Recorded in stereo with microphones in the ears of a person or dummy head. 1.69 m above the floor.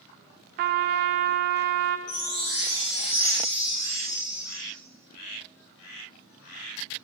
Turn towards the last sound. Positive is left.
turn(degrees=60)  # may be behind; listen again after turning